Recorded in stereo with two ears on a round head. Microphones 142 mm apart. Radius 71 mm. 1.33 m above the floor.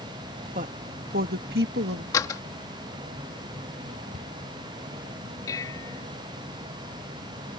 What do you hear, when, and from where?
0.6 s a woman speaking: 50° right (ahead or behind); by 2.0 s 80° right
2.1 s a door slam: 20° left (ahead or behind)
4.1 s a cupboard door: 45° right (ahead or behind)
5.5 s dishes clattering: 20° left (ahead or behind)